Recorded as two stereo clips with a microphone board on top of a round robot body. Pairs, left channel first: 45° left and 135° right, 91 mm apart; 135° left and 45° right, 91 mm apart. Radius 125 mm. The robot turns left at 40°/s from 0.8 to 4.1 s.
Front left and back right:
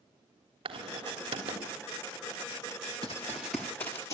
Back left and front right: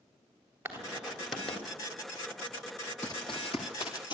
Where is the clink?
I don't hear a clink.